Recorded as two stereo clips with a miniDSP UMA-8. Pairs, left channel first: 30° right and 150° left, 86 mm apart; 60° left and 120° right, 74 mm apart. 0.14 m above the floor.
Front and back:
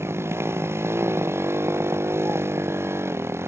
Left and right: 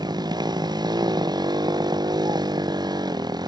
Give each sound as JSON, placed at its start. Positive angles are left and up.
{"t": 0.0, "sound": "a motorcycle", "azimuth_deg": -150}